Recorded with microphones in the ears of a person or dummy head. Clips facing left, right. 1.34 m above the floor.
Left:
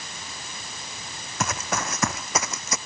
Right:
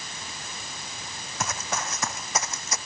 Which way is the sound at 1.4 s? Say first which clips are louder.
Left 4 dB; 55° left (ahead or behind).